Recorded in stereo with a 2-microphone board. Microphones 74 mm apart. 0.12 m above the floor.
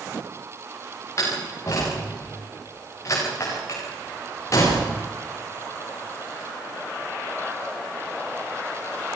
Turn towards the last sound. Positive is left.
turn(degrees=40)  # may be behind; listen again after turning